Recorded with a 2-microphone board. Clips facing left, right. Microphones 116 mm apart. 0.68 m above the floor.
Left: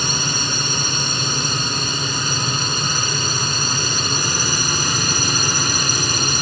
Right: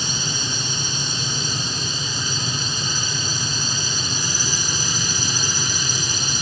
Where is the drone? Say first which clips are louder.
Left 5 dB; 60° left (ahead or behind).